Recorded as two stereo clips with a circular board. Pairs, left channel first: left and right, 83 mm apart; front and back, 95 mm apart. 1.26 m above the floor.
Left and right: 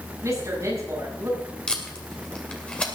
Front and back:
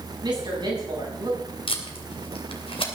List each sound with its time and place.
0.2 s a woman speaking: 140° right, 8 m
1.7 s tape being pulled: 10° left, 2.5 m